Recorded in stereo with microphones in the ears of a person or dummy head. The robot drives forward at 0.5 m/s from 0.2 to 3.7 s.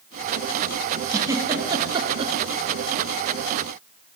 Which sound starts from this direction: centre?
A giggle, at 1.1 s.